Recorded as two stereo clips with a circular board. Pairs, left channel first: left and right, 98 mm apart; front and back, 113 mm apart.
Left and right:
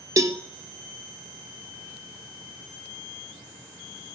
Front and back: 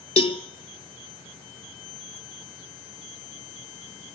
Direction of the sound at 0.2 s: 35° right.